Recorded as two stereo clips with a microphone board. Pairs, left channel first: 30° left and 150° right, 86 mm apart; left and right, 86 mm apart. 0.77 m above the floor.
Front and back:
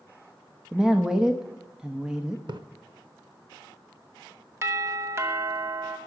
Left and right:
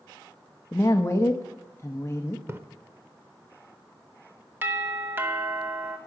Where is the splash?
145° right, 0.7 m.